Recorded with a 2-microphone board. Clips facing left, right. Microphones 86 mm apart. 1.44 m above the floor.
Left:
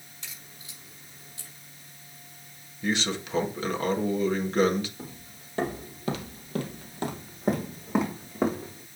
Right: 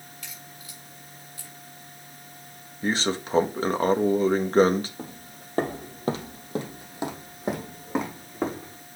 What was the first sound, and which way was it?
A crack, 25° left (ahead or behind).